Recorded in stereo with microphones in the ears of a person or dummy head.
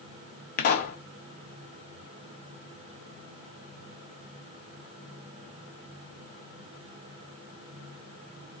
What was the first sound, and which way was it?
A pop, 40° left (ahead or behind).